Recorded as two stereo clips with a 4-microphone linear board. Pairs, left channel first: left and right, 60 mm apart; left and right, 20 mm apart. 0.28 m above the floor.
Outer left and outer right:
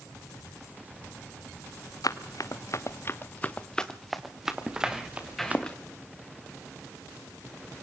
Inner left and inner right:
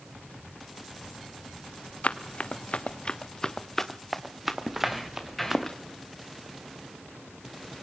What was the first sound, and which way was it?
Running footsteps, 80° left.